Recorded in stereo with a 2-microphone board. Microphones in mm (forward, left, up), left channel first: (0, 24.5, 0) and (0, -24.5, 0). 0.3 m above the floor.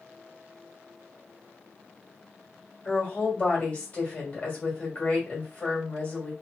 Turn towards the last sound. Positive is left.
turn(degrees=25)  # may be behind; listen again after turning